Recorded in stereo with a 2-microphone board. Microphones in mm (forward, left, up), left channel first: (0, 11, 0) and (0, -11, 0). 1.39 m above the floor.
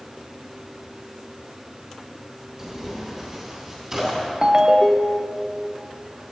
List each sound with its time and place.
2.6 s tearing paper: 15° right (ahead or behind), 3 m
4.4 s a ringtone: 30° right (ahead or behind), 0.5 m